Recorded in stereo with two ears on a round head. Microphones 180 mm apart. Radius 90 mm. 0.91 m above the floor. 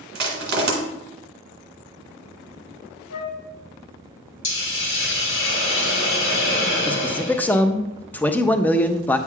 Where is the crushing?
55° right (ahead or behind), 2.0 m.